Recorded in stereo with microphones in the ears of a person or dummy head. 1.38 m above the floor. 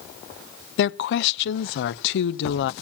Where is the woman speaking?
70° left (ahead or behind), 0.7 m.